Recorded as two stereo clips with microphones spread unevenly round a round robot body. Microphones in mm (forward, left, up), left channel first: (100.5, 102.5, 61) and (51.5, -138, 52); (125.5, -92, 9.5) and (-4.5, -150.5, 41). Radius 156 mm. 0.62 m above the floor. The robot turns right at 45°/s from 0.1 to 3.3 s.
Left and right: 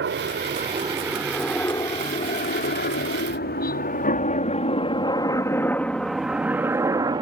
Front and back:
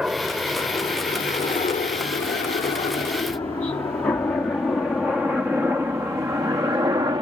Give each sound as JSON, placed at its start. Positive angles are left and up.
{"t": 0.0, "sound": "a helicopter", "azimuth_deg": -70}